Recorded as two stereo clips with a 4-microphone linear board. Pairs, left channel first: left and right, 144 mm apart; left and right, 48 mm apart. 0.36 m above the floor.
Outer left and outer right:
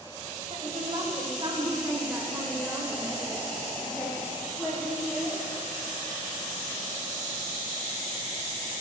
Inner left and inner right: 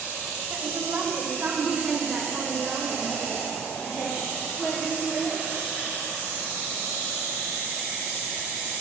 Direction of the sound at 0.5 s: 45° right (ahead or behind).